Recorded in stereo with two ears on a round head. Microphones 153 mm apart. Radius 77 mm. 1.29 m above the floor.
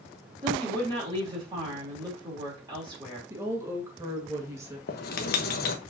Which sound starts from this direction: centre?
A woman speaking, at 3.3 s.